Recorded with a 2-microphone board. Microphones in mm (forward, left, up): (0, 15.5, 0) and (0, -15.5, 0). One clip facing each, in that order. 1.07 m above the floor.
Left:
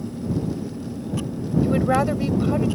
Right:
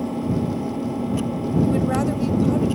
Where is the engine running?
70° right (ahead or behind).